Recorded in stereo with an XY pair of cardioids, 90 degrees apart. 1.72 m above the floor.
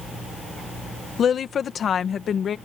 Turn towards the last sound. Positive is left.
turn(degrees=55)